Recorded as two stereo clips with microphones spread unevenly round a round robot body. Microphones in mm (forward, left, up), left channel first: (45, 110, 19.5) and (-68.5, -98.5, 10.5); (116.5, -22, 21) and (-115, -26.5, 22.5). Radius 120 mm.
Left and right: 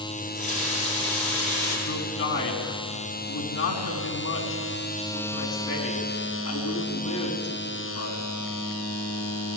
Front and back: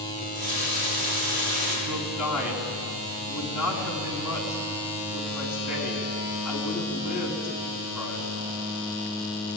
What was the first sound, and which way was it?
A running tap, 125° left.